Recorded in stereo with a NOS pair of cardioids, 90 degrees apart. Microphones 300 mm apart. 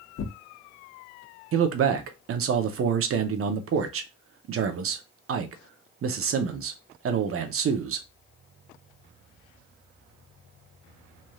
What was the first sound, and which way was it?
Tearing paper, 55° left.